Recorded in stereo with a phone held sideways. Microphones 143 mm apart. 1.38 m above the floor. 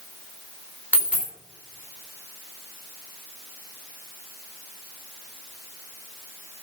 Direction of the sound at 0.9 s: 10° right (ahead or behind).